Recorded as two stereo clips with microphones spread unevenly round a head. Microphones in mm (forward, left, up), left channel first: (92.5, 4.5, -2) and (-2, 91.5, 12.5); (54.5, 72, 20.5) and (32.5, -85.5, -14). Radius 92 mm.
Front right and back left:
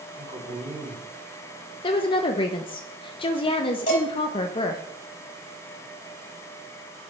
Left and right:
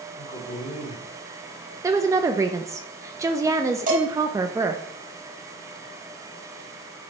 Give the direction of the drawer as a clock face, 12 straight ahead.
No drawer in this recording.